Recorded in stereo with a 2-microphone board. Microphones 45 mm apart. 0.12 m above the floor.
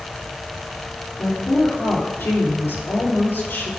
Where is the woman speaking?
60° left (ahead or behind), 2.5 m.